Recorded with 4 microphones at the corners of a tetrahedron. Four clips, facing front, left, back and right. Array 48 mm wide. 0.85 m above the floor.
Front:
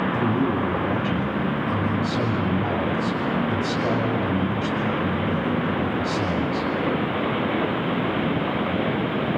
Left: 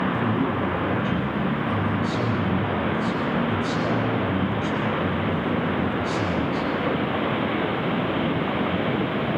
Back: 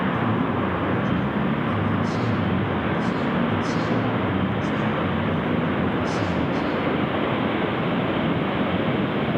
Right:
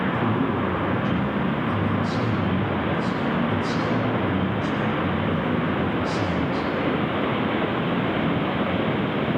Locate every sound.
0.1 s a man speaking: 20° left, 6 m